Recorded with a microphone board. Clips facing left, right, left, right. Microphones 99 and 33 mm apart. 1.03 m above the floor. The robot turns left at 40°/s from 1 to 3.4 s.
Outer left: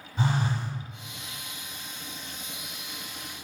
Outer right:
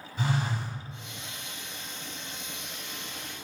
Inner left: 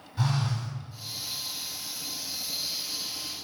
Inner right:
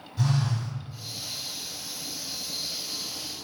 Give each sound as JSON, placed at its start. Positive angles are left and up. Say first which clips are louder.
{"t": 0.2, "sound": "a phone buzzing", "louder": "outer left 2 dB, inner right 2 dB", "side_deg": 35, "distance_m": 1.2}